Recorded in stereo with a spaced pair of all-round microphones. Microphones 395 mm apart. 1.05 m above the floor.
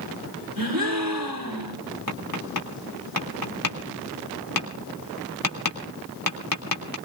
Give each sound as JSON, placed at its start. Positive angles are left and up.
{"t": 0.6, "sound": "a gasp", "side_deg": -60, "distance_m": 3.5}
{"t": 2.1, "sound": "tapping", "side_deg": 55, "distance_m": 3.0}